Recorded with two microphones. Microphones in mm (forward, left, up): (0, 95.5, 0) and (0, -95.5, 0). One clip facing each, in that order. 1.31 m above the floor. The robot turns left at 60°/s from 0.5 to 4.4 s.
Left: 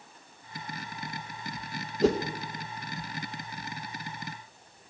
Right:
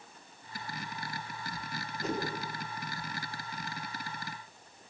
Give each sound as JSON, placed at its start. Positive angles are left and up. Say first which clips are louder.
{"t": 2.0, "sound": "a whoosh", "louder": "left 11 dB", "side_deg": 75, "distance_m": 1.8}